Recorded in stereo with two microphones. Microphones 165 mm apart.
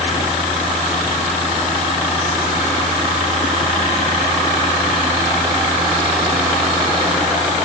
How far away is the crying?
No crying in this recording.